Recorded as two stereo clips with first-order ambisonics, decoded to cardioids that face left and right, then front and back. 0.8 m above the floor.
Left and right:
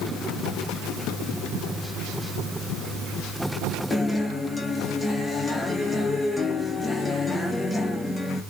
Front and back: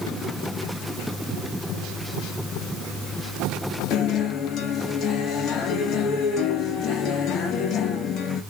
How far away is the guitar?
About 0.8 m.